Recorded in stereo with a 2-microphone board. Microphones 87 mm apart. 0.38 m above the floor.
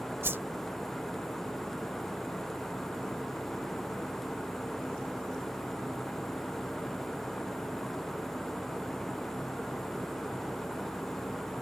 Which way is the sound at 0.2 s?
30° right (ahead or behind).